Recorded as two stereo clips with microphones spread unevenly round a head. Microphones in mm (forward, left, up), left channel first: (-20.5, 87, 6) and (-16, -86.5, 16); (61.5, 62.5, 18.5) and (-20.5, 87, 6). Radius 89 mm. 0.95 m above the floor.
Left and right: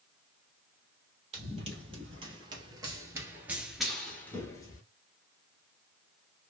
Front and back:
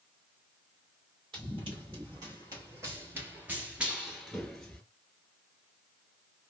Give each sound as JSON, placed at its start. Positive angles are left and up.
{"t": 1.3, "sound": "running footsteps", "azimuth_deg": -140, "distance_m": 1.7}